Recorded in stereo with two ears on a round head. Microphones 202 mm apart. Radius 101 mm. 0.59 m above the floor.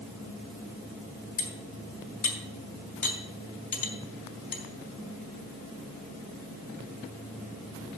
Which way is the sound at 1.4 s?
40° left (ahead or behind).